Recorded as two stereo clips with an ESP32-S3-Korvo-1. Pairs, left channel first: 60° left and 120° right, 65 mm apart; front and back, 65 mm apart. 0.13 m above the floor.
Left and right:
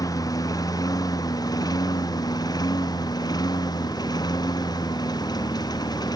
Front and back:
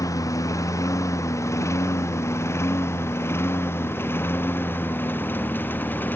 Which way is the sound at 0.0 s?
35° left.